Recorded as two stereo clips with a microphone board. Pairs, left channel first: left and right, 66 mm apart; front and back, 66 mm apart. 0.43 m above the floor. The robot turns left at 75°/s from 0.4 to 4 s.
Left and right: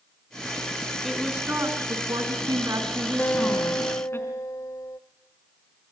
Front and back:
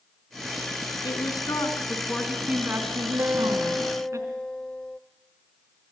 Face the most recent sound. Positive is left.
turn(degrees=75)